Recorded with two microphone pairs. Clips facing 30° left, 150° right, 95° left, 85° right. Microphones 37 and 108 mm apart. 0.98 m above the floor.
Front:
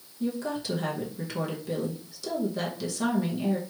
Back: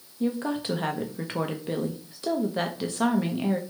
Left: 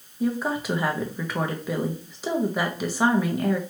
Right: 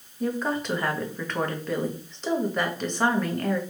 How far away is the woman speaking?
About 0.7 m.